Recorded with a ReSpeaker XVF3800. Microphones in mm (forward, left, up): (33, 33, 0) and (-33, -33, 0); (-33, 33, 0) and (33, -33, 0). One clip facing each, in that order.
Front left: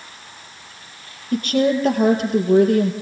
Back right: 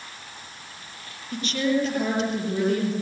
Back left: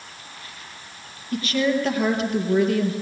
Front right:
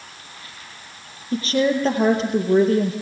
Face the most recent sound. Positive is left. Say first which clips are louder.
# front left 6 dB, front right 2 dB
turn(degrees=10)